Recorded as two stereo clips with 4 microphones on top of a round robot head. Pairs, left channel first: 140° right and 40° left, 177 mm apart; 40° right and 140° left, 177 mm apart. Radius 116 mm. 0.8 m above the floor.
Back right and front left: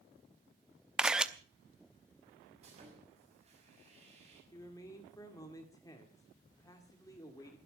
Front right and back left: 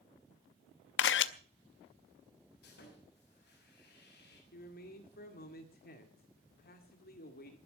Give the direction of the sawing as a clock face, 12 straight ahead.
12 o'clock.